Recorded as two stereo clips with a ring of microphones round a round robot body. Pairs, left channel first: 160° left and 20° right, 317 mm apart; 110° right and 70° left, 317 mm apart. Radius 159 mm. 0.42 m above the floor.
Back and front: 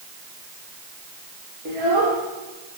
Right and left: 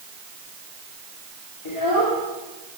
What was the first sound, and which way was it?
A child speaking, 85° right.